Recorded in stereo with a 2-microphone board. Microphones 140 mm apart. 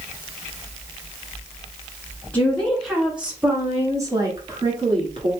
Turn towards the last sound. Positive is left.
turn(degrees=-35)  # may be behind; listen again after turning